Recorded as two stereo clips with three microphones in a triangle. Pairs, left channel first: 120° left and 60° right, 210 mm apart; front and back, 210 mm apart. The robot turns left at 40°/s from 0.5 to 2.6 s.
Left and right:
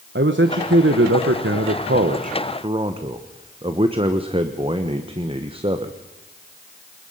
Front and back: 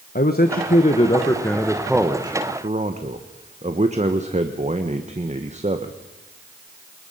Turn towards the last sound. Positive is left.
turn(degrees=-125)